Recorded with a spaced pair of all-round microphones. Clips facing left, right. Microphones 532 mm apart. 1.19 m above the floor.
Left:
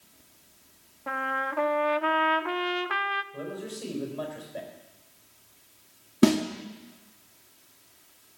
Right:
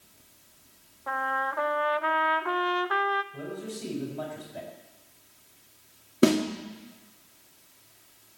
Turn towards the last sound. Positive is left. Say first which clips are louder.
# even
turn(degrees=15)  # may be behind; listen again after turning